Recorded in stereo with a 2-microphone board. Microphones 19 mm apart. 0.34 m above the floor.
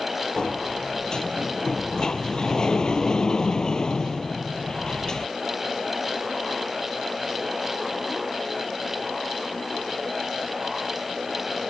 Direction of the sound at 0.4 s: 45° left (ahead or behind).